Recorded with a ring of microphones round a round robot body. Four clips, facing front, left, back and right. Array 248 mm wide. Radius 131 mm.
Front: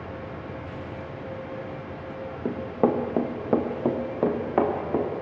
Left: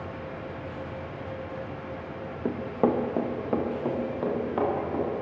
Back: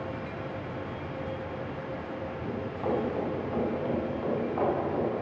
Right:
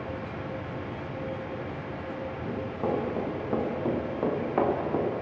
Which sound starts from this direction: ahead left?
Running footsteps, at 2.5 s.